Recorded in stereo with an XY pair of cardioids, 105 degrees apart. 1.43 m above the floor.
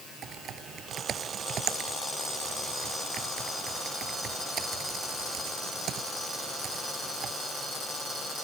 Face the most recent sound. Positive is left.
turn(degrees=-60)